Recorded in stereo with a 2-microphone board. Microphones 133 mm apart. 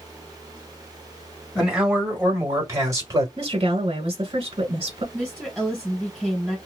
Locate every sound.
1.6 s a man speaking: 5° right (ahead or behind), 1.5 m; by 3.3 s 30° right (ahead or behind), 1.4 m
3.4 s a woman speaking: 45° right (ahead or behind), 1.5 m
5.1 s a woman speaking: 5° left (ahead or behind), 1.7 m